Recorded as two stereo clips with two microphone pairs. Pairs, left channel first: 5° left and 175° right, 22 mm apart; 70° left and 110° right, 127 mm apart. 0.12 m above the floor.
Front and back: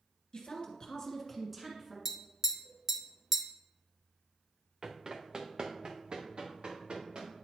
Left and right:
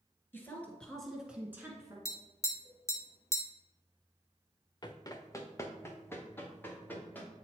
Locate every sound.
0.3 s a woman speaking: 5° left, 1.8 m; by 1.9 s 140° right, 1.4 m
2.0 s tapping: 125° left, 1.0 m
4.8 s running footsteps: 125° left, 0.7 m; by 7.3 s 145° left, 2 m